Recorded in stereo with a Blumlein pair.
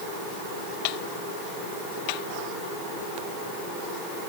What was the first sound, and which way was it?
Only background noise.